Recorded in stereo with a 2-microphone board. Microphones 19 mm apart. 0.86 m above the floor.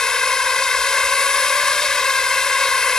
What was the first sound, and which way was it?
A drone, 30° left (ahead or behind).